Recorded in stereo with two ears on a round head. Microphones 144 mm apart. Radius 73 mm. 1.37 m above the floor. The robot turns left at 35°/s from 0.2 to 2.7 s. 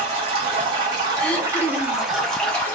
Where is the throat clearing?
5° left (ahead or behind), 0.9 m; by 2.1 s 15° left (ahead or behind), 0.9 m.